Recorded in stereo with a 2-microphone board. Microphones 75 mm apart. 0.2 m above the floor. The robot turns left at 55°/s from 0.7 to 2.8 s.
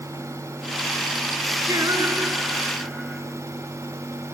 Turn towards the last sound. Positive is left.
turn(degrees=-175)